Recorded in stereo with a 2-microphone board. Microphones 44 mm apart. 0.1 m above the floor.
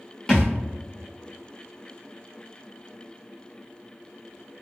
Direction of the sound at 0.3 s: 10° left (ahead or behind).